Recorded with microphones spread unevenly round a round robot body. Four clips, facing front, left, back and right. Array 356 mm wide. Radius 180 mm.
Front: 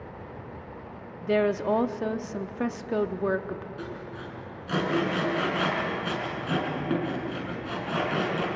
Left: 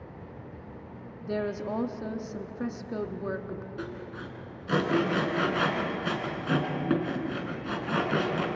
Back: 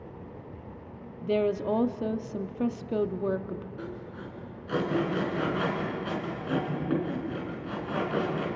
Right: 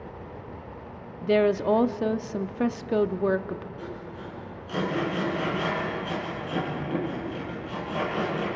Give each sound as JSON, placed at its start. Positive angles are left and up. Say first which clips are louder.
{"t": 1.2, "sound": "a woman speaking", "louder": "right 10 dB, front 2 dB", "azimuth_deg": -90, "distance_m": 0.7}
{"t": 3.8, "sound": "sawing", "louder": "right 1 dB, front 2 dB", "azimuth_deg": 70, "distance_m": 5.5}